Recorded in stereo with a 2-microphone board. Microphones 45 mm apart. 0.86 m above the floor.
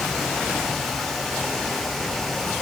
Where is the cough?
No cough in this recording.